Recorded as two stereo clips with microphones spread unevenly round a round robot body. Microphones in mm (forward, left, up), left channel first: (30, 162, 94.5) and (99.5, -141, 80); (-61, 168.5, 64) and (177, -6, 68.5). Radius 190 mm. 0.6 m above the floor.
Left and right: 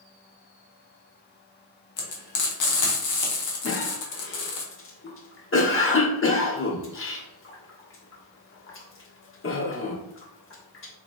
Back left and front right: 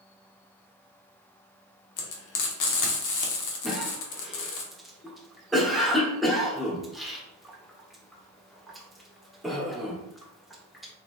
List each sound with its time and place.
2.0 s frying: 130° left, 1.0 m
3.6 s a cough: 55° left, 1.3 m